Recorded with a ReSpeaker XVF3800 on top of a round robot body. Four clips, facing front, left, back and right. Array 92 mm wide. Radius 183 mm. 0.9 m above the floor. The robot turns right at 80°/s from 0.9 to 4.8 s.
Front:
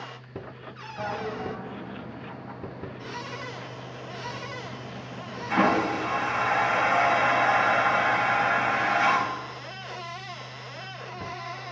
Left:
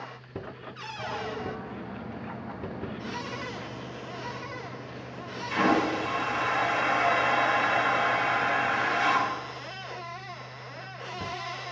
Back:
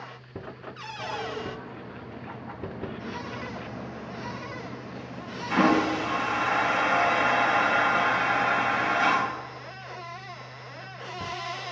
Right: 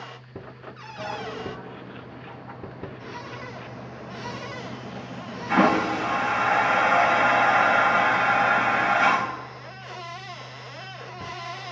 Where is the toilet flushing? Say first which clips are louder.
Right 2 dB, front 2 dB; 25° right, 1.3 m; by 9.3 s 80° right, 1.3 m.